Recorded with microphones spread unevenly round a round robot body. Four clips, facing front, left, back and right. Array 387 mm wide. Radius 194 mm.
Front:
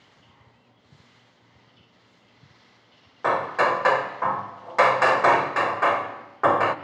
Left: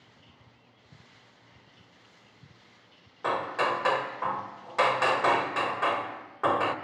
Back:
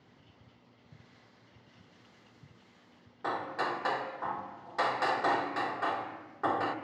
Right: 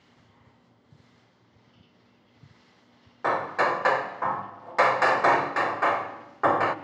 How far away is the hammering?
About 1.3 m.